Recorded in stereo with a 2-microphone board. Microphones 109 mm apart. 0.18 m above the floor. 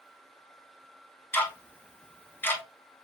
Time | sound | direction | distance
1.3 | ticking | 20° left (ahead or behind) | 0.6 m